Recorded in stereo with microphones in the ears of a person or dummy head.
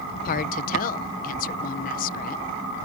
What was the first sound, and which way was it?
A woman speaking, 45° left (ahead or behind).